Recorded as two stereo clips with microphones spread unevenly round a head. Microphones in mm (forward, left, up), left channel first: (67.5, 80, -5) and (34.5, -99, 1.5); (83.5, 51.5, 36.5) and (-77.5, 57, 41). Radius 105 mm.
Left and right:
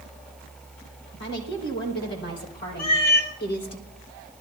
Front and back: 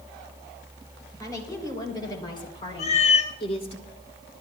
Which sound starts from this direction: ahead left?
A cat meowing, at 2.8 s.